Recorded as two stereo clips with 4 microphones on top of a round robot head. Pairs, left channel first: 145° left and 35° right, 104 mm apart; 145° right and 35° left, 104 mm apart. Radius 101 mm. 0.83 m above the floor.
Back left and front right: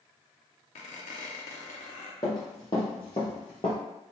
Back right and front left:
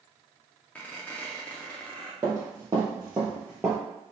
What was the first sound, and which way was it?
A squeak, 135° left.